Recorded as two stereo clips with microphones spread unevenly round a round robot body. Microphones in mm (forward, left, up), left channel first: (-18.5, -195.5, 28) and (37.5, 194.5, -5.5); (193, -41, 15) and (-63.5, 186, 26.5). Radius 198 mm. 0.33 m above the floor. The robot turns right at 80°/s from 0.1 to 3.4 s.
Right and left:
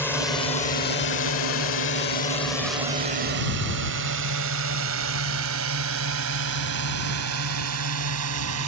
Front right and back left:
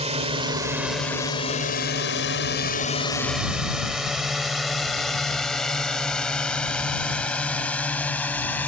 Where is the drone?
175° left; by 8.7 s 45° left.